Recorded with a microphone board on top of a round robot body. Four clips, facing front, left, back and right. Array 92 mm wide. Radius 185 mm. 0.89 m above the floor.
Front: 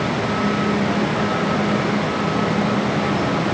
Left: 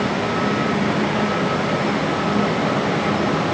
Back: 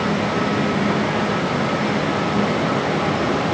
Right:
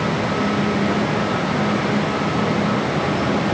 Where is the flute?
I don't hear a flute.